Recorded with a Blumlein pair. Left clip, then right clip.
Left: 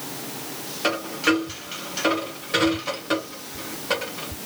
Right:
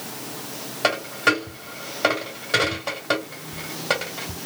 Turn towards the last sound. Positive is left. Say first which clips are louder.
# right 2 dB
turn(degrees=-15)